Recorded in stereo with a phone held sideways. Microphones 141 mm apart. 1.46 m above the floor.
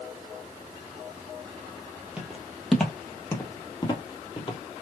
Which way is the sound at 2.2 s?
10° right (ahead or behind).